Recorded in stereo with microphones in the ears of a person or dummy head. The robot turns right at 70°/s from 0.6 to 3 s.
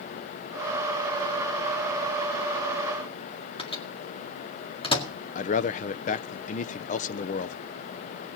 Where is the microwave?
25° left (ahead or behind), 1.9 m.